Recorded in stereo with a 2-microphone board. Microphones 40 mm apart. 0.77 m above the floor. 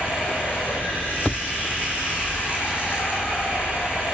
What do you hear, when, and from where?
0.0 s running water: 60° left (ahead or behind), 7 m